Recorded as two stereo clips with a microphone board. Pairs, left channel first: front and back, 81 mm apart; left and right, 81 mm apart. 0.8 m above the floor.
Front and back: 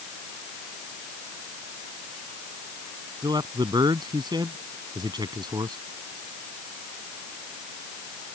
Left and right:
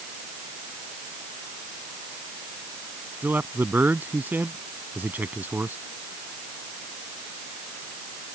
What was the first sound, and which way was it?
A man speaking, 155° right.